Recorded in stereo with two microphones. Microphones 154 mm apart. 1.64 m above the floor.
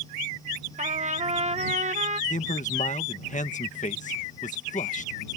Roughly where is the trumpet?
Right.